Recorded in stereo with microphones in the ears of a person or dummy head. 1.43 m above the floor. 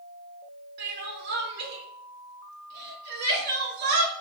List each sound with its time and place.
0.8 s crying: 60° right (ahead or behind), 2 m